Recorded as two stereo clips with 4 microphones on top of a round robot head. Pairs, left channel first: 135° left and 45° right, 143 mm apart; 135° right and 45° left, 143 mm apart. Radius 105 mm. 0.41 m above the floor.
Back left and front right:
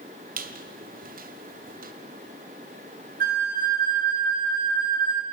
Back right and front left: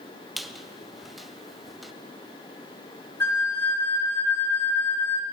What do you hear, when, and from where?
0.4 s a squeak: 45° right, 1.6 m
3.2 s a flute: 60° right, 4 m